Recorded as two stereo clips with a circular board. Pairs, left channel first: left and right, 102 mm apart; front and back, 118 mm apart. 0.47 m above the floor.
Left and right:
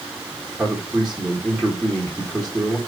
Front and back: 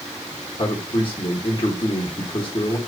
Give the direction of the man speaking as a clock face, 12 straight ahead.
12 o'clock.